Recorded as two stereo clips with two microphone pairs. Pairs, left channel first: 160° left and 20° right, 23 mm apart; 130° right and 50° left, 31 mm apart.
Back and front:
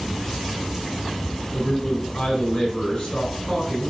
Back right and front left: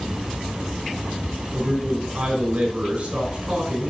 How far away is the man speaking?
About 5 m.